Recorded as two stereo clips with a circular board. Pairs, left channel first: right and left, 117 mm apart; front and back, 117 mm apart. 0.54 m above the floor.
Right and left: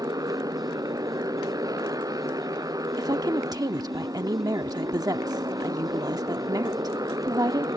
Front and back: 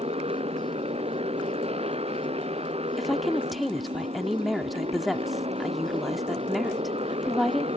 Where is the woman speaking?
90° left.